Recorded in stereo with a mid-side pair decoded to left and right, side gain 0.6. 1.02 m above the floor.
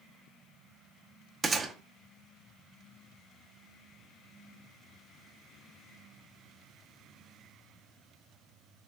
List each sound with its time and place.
1.4 s a gunshot: 25° right, 0.7 m